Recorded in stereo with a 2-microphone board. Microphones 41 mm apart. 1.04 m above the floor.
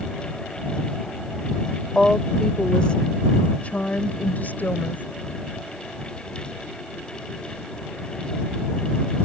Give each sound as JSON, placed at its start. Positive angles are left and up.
{"t": 1.9, "sound": "a woman speaking", "side_deg": 10}